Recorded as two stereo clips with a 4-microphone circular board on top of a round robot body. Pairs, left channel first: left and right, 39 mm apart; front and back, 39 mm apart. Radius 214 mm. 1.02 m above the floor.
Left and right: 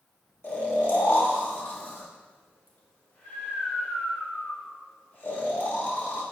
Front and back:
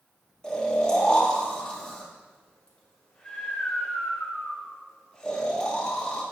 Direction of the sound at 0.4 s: 70° left.